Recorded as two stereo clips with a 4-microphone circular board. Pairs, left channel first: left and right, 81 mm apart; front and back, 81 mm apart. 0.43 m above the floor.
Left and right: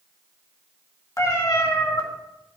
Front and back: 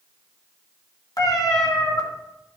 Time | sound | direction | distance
1.2 | a cat meowing | 40° left | 1.5 m